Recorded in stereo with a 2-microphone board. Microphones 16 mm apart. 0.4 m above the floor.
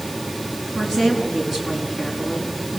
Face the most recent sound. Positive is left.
turn(degrees=-15)  # may be behind; listen again after turning